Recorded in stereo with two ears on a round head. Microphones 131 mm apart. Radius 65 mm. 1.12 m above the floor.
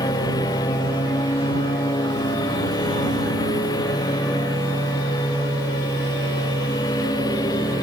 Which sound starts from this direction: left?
A lawn mower, at 0.0 s.